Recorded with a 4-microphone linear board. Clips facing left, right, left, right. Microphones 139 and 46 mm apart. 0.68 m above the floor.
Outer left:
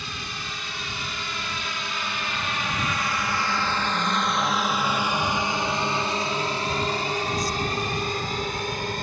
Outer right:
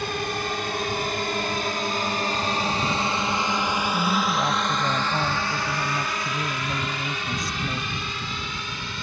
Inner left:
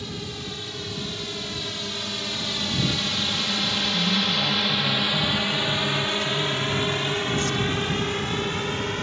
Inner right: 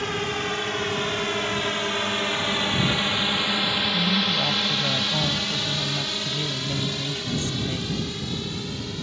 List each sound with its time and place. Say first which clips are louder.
0.0 s a drone: outer right 10 dB, inner right 8 dB; 60° right (ahead or behind); by 9.0 s 50° left (ahead or behind)
3.9 s a woman speaking: outer right 2 dB, inner right 1 dB; 25° right (ahead or behind)